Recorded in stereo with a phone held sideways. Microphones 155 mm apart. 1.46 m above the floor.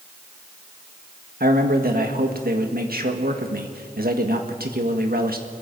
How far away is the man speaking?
About 1.7 m.